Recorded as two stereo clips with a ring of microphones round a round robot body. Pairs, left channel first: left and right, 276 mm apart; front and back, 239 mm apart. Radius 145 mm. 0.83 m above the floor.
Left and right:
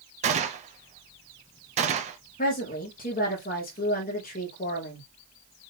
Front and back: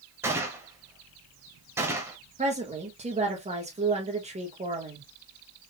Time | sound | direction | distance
0.2 | a gunshot | 110° right | 0.6 m
2.4 | a woman speaking | 130° left | 1.2 m